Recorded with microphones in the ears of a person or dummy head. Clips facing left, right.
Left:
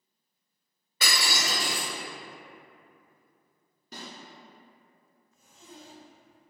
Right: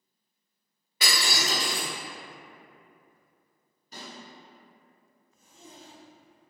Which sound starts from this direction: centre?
Breaking glass, at 1.0 s.